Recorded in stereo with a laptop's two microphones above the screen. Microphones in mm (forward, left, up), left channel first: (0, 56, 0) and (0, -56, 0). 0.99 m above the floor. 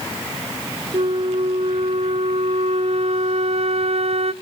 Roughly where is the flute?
Right.